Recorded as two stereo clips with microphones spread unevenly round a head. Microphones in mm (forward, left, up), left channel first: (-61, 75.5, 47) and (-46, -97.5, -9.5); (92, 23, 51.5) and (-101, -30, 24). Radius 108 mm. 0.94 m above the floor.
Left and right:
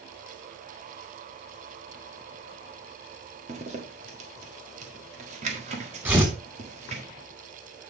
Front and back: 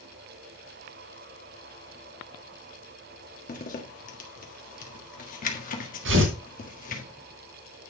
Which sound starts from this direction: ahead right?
A zipper, at 3.5 s.